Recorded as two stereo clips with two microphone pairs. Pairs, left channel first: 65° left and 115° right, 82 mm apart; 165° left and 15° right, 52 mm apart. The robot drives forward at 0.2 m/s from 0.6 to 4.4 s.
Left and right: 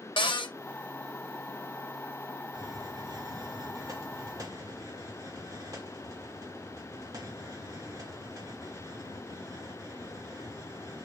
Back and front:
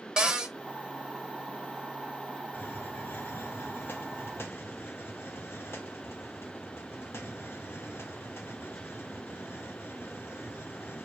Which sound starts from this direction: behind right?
A hiss, at 2.5 s.